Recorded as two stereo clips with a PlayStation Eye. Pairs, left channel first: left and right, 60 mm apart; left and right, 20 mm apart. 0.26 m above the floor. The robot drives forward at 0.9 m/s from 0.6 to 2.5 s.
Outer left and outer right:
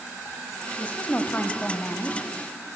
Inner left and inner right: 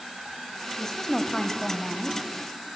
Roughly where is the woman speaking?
Left.